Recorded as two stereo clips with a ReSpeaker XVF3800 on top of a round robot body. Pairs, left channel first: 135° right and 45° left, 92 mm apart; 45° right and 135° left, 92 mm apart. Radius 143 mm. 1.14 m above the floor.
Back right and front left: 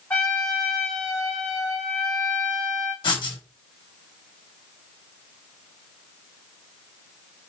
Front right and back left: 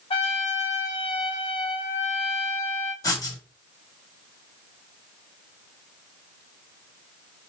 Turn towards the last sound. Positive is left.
turn(degrees=-95)